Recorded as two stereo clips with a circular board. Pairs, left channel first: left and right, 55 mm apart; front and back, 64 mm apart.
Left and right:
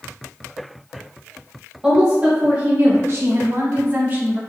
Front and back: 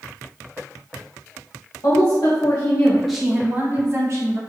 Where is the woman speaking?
20° right, 0.8 m; by 4.4 s 145° right, 0.9 m.